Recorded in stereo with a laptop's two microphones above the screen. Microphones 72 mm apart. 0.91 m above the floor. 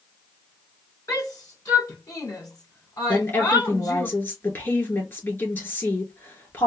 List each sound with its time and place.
1.1 s a shout: 50° left (ahead or behind), 2.5 m
3.1 s a woman speaking: 30° left (ahead or behind), 2.5 m